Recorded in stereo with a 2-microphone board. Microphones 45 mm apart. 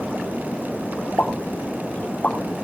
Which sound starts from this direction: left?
A pop, at 1.2 s.